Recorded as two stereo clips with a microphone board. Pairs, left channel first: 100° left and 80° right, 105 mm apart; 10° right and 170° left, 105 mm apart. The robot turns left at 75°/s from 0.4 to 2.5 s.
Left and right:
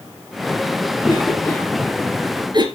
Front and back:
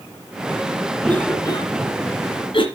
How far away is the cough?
About 2.5 m.